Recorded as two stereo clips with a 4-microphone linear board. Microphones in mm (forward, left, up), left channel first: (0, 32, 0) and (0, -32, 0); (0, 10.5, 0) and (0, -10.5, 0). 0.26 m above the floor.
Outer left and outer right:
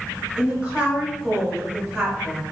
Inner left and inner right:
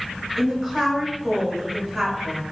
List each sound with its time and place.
0.4 s a woman speaking: 15° right (ahead or behind), 1.4 m